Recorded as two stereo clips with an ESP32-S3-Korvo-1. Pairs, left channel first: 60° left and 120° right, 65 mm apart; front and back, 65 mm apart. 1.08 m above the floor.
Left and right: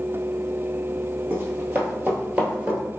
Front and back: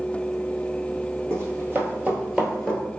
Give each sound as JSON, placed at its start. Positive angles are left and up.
{"t": 1.3, "sound": "running footsteps", "azimuth_deg": -170, "distance_m": 1.4}